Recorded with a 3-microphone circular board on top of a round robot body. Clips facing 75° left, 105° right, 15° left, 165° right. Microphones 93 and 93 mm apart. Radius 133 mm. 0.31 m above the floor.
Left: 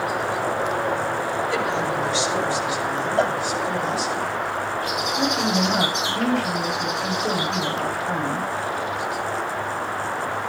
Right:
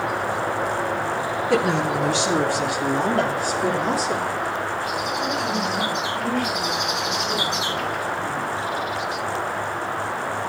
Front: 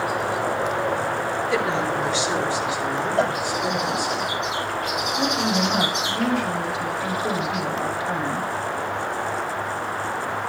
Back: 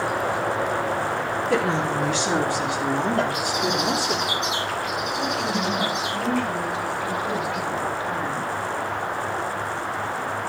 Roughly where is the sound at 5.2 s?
Left.